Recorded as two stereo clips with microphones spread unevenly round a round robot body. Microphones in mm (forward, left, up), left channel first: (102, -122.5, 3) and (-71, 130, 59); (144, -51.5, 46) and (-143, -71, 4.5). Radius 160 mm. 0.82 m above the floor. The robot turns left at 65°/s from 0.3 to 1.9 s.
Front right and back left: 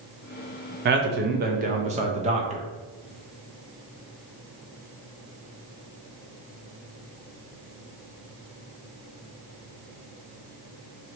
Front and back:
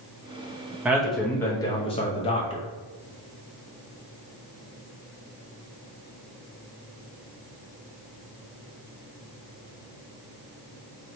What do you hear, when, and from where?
0.8 s a man speaking: 135° left, 0.5 m; by 2.6 s 65° left, 0.5 m